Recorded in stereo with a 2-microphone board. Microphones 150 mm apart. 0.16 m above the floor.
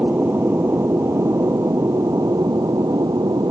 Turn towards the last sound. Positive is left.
turn(degrees=-25)  # may be behind; listen again after turning